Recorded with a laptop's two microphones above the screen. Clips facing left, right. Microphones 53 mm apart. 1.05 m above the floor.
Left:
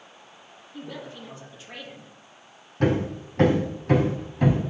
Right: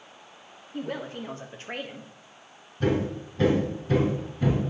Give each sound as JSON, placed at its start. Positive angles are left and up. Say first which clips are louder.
{"t": 0.7, "sound": "a woman speaking", "louder": "right 5 dB", "side_deg": -45, "distance_m": 1.5}
{"t": 2.8, "sound": "hammering", "louder": "left 2 dB", "side_deg": 70, "distance_m": 3.0}